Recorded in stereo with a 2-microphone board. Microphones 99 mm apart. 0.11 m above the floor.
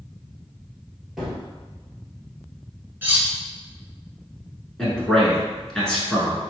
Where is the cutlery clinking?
20° right (ahead or behind), 0.9 m.